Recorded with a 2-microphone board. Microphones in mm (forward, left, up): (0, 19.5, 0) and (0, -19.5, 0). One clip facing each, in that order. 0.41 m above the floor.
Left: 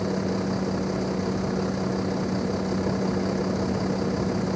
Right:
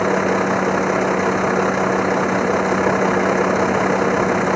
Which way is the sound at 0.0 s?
70° right (ahead or behind).